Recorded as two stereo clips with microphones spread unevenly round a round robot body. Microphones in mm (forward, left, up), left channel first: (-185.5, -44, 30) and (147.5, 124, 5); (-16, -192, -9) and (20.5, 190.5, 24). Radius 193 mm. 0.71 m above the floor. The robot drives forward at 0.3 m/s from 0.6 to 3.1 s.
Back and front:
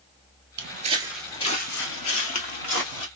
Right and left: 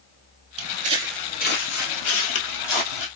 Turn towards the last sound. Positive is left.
turn(degrees=-115)